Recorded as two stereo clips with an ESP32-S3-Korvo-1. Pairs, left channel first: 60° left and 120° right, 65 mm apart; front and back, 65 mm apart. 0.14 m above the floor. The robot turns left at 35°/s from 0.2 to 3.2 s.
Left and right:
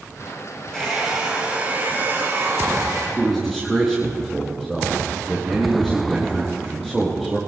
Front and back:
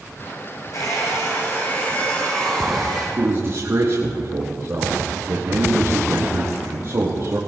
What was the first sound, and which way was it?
A hair dryer, 20° right.